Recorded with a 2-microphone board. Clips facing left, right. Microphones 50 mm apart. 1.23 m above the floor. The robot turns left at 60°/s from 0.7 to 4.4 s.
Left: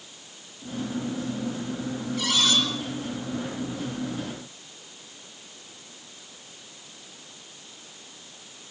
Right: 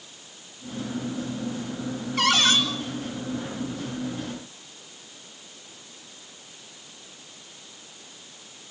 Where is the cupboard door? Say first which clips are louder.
Right 4 dB; 60° right (ahead or behind), 8.5 m; by 2.6 s 35° right (ahead or behind), 8.5 m.